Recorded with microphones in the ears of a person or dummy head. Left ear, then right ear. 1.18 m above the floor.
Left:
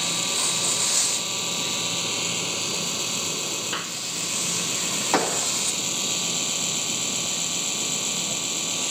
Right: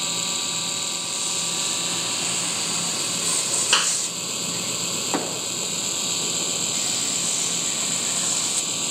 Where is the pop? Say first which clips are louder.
Left 4 dB; 70° left (ahead or behind).